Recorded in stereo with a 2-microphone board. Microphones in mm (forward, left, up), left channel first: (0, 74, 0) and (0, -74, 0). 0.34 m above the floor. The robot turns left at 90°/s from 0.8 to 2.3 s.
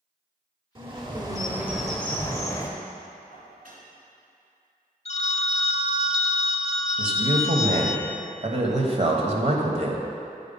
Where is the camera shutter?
No camera shutter in this recording.